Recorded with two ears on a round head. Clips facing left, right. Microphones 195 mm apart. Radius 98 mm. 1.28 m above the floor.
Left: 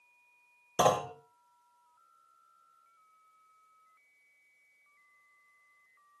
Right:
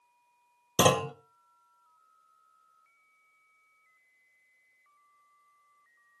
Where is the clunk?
40° right (ahead or behind), 0.8 m.